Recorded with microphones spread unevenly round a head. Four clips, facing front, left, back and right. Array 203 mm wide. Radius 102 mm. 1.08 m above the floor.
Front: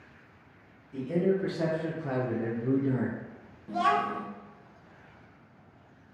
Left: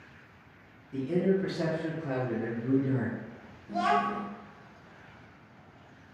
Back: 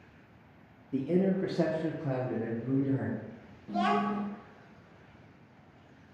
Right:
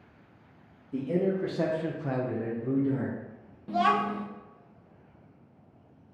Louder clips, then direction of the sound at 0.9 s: Even, front 1 dB; 160° right.